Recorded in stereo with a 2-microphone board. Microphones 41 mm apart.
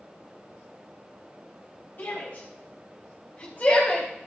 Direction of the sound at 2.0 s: 50° left (ahead or behind).